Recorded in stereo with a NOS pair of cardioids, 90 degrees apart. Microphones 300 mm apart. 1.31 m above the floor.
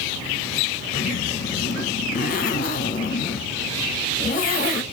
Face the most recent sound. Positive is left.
turn(degrees=30)